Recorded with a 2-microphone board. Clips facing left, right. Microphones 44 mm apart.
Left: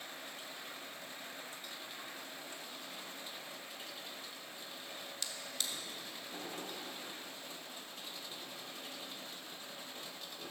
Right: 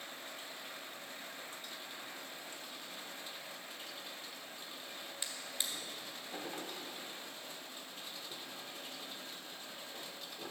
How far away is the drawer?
About 1.2 m.